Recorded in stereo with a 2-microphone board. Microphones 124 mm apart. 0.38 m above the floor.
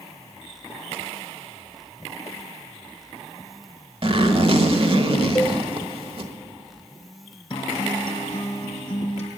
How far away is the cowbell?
About 0.9 m.